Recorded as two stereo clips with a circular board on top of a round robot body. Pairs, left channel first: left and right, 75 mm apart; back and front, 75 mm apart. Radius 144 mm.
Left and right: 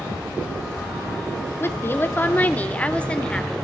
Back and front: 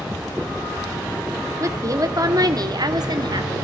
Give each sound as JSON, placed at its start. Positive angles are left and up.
{"t": 1.6, "sound": "a woman speaking", "azimuth_deg": 40, "distance_m": 1.8}